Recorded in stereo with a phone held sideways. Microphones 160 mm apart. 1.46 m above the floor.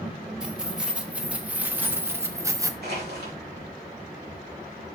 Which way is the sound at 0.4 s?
5° right (ahead or behind).